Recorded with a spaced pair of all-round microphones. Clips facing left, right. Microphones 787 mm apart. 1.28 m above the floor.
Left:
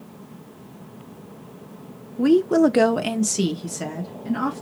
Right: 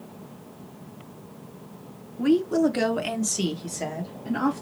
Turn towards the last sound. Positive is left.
turn(degrees=35)  # may be behind; listen again after turning